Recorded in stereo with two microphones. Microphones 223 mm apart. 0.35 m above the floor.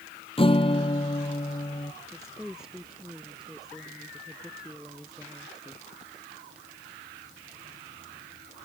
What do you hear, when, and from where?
0.4 s a guitar: 25° left (ahead or behind)
2.1 s a woman speaking: centre (ahead or behind)